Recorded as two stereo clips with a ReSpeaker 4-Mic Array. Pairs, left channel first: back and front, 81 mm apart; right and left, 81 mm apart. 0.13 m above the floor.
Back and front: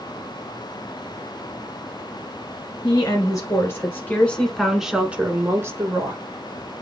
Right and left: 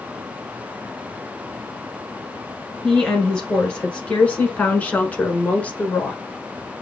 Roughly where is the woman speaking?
Behind.